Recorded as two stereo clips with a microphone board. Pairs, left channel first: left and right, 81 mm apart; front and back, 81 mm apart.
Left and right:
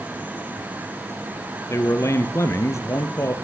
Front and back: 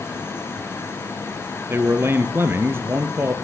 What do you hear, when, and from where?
1.7 s a man speaking: 130° left, 1.8 m